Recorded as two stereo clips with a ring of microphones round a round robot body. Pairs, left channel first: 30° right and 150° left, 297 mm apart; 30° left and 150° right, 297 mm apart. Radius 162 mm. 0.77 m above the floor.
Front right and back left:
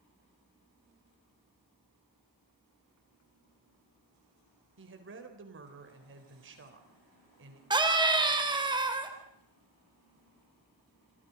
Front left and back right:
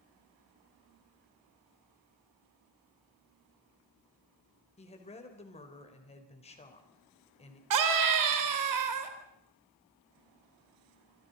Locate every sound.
4.8 s a woman speaking: 100° left, 4 m
7.7 s a scream: 135° right, 4 m